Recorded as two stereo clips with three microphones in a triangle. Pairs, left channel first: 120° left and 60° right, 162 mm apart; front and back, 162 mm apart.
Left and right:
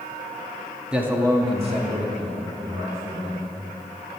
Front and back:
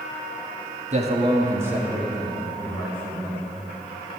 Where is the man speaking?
145° right, 1.6 m; by 3.5 s 70° right, 4 m.